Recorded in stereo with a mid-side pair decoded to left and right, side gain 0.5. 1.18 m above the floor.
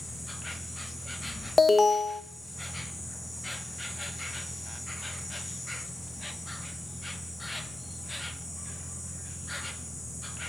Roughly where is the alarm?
Ahead.